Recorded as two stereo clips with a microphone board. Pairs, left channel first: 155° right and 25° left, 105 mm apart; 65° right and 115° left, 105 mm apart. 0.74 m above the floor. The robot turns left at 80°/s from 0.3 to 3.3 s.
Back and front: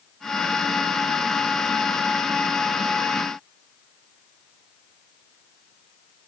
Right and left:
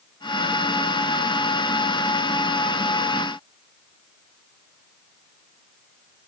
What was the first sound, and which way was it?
Only background noise.